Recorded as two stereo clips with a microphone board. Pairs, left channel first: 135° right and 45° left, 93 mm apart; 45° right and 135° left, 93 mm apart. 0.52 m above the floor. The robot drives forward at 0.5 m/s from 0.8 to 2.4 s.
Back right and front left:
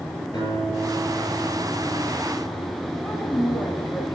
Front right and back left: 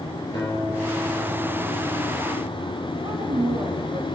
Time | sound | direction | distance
0.3 | a guitar | 95° right | 4.5 m
3.0 | a woman speaking | 170° left | 3 m